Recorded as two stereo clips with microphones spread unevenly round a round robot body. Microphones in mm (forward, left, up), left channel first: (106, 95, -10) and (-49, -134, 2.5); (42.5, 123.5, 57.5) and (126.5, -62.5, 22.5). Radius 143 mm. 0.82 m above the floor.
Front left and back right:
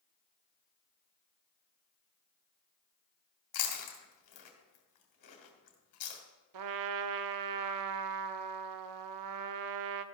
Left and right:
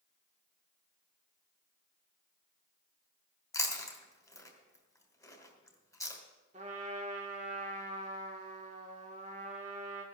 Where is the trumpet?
135° right, 0.6 m.